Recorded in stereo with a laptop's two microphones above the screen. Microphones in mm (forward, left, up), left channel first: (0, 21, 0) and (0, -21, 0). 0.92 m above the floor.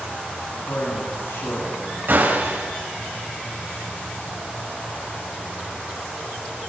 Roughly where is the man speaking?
Left.